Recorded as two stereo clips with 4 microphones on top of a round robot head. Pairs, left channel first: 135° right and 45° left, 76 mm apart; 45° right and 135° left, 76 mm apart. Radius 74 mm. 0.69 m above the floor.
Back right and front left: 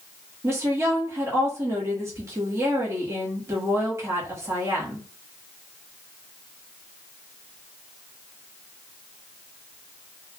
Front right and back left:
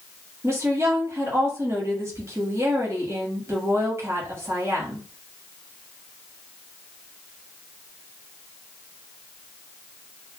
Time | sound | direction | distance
0.4 | a woman speaking | 90° left | 1.3 m